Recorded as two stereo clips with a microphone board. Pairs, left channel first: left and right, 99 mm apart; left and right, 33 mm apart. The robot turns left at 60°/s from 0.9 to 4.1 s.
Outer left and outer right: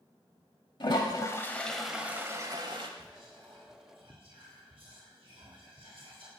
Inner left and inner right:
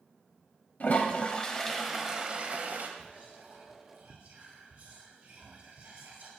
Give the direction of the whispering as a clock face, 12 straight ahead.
1 o'clock.